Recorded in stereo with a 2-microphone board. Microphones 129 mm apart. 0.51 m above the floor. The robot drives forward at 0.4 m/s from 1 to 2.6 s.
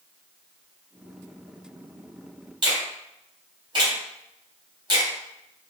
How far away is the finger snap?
About 1.5 m.